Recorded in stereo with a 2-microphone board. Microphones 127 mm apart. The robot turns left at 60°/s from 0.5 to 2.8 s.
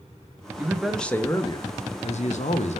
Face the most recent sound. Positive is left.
turn(degrees=65)